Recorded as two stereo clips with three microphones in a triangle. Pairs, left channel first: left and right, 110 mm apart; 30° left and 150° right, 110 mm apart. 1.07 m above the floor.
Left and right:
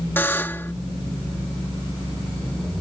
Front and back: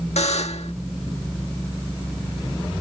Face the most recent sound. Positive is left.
turn(degrees=20)